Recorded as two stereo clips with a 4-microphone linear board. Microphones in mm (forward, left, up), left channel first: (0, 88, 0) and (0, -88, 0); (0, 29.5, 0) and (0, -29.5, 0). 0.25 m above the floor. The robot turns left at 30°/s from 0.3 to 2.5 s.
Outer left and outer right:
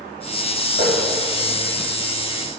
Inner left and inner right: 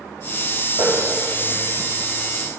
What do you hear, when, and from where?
0.8 s a running tap: 60° right (ahead or behind), 6 m; by 2.4 s 70° right (ahead or behind), 6 m